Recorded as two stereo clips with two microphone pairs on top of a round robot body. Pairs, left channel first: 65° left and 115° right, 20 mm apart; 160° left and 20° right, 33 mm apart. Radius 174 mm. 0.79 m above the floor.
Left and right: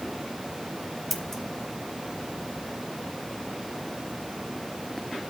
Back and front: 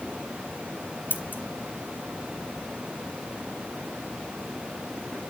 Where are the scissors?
135° left, 2 m.